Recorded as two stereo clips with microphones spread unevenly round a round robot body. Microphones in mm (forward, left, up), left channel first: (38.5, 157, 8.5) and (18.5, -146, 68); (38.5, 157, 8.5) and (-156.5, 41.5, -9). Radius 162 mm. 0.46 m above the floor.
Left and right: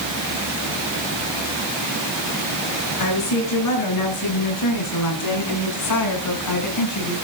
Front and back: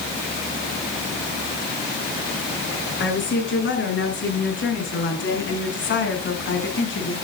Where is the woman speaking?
65° left, 5.5 m.